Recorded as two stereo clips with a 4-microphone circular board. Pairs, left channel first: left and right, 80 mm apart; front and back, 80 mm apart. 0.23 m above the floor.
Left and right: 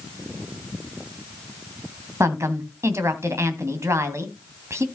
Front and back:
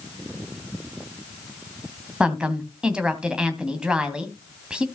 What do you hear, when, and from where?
2.2 s a woman speaking: 110° right, 1.7 m